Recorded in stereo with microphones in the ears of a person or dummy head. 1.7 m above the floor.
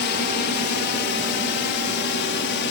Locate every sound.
0.0 s a drone: 50° left (ahead or behind); by 2.7 s 55° left (ahead or behind)